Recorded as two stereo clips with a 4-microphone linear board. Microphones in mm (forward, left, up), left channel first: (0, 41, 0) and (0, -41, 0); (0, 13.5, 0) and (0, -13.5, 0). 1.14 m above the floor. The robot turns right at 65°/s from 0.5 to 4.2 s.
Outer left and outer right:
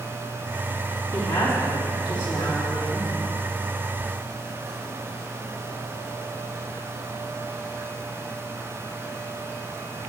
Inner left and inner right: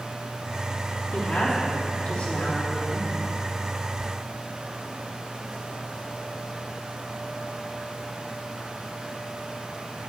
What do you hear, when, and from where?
1.1 s a woman speaking: 15° left, 3 m; by 3.1 s 145° left, 3 m